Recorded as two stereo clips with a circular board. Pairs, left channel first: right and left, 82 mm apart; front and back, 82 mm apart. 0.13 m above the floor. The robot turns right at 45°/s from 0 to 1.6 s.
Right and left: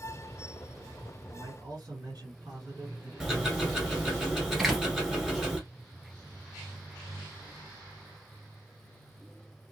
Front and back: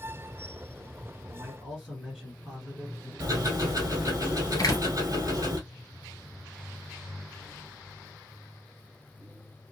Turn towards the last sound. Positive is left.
turn(degrees=10)